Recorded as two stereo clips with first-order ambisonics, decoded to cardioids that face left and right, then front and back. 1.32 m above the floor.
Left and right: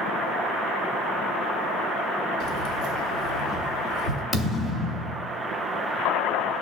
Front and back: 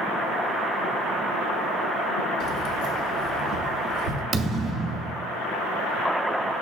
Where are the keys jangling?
55° right, 0.9 m; by 4.2 s 40° right, 3 m.